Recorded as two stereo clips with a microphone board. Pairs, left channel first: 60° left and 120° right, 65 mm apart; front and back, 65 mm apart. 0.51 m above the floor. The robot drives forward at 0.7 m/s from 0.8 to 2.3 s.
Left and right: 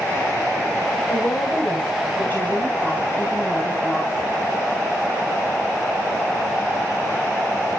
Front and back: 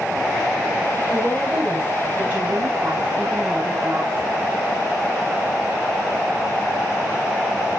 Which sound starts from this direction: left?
A woman speaking, at 1.1 s.